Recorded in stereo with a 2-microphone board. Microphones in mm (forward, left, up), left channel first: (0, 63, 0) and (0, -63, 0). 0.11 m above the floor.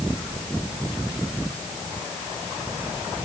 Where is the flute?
No flute in this recording.